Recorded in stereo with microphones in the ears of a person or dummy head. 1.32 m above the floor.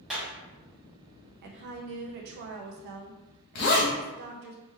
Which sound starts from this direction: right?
A woman speaking, at 1.4 s.